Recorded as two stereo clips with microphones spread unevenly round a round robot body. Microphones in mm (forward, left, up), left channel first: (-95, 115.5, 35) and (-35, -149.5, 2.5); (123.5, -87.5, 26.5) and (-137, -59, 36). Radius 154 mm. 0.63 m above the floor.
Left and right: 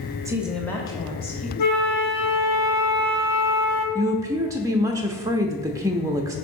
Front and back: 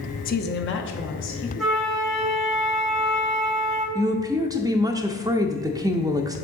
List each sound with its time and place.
0.2 s a woman speaking: 20° right, 0.7 m; by 1.5 s 35° left, 1.3 m
1.6 s a flute: 85° left, 1.2 m
4.0 s a woman speaking: 120° right, 0.5 m